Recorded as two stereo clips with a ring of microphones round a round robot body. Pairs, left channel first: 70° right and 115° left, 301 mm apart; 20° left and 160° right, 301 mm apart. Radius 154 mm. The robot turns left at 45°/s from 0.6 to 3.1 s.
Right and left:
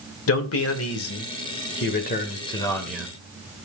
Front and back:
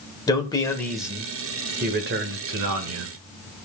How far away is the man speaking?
About 1.2 m.